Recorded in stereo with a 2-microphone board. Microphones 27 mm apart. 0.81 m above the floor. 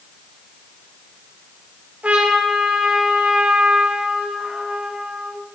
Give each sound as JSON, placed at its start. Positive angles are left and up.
{"t": 2.0, "sound": "a trumpet", "side_deg": -70, "distance_m": 1.6}